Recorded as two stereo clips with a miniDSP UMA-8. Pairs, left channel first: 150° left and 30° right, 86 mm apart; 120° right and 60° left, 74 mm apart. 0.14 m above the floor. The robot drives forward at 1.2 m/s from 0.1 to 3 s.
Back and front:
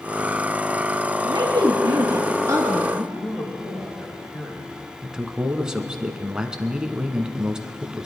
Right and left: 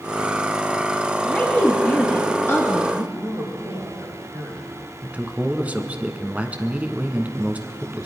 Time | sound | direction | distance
1.2 | a woman speaking | 30° right | 2.5 m
3.1 | a man speaking | 100° left | 6.5 m
5.0 | a man speaking | 35° left | 1.1 m